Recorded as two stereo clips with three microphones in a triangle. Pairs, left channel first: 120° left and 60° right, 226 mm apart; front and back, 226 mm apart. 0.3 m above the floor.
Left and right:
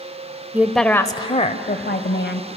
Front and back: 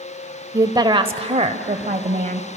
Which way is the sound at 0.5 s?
130° right.